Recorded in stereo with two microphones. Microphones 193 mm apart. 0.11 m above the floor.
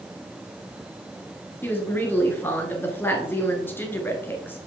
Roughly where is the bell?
No bell in this recording.